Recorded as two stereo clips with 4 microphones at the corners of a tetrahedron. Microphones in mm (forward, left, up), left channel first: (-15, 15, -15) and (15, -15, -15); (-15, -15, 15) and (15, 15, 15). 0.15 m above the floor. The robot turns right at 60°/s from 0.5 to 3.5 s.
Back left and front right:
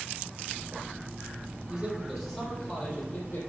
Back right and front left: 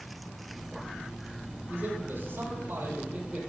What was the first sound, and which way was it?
A man speaking, 25° left.